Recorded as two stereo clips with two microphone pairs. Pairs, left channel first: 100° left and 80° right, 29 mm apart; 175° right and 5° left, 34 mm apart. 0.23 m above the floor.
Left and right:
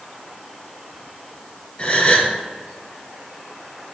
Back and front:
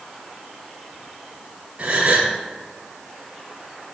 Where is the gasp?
50° left, 1.4 m.